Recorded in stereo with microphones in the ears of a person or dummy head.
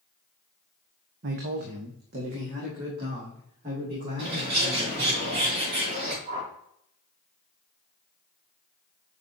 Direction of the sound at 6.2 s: 30° right (ahead or behind).